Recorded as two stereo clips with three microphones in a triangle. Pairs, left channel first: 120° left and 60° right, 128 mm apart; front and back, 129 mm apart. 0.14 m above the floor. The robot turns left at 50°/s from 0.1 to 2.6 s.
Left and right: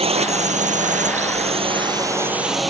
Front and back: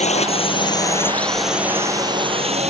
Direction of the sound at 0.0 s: 25° right.